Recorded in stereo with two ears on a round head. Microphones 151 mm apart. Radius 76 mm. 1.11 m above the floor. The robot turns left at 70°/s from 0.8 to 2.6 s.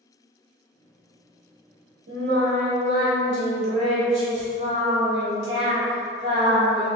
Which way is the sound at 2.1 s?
95° right.